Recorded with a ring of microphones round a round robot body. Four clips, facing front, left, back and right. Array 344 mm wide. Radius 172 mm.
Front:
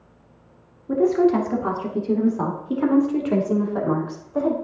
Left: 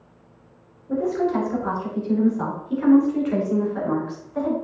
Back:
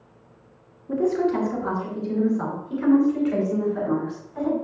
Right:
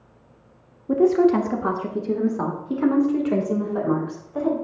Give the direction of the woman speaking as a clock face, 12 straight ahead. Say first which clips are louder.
Right 5 dB, front 4 dB; 2 o'clock.